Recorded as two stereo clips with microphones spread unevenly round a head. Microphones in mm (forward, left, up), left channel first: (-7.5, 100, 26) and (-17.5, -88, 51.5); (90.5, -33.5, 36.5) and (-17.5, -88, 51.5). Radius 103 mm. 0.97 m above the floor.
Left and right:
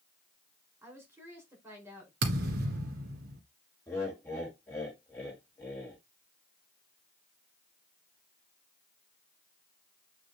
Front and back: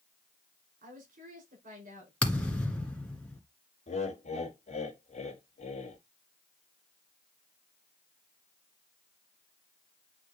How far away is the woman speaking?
About 5 m.